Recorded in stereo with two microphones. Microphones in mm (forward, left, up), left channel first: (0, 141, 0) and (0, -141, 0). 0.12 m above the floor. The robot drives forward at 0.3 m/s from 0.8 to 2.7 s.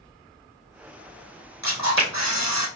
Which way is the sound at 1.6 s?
70° left (ahead or behind).